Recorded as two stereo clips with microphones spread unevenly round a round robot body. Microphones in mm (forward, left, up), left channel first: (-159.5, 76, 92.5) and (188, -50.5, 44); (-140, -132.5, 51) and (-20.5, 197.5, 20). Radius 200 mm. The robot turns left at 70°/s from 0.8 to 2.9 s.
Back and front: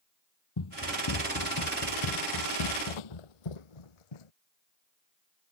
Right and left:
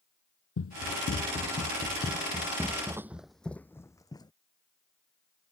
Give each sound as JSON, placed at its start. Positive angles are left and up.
{"t": 0.6, "sound": "running footsteps", "azimuth_deg": -165}